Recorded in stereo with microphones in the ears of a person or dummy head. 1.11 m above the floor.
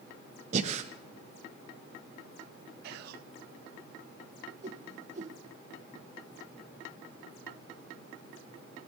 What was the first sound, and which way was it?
Breathing, 40° right (ahead or behind).